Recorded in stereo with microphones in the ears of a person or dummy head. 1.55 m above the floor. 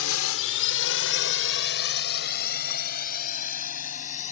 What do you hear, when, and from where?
0.0 s a drone: 75° left (ahead or behind); by 4.3 s 35° left (ahead or behind)